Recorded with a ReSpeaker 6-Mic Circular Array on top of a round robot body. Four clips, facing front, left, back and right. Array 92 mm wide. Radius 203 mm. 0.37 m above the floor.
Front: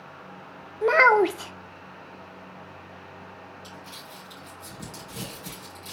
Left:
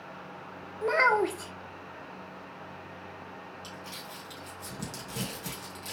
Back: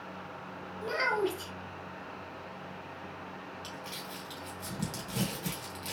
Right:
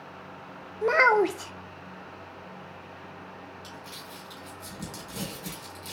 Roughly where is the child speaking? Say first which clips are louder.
Right 4 dB, front 12 dB; ahead.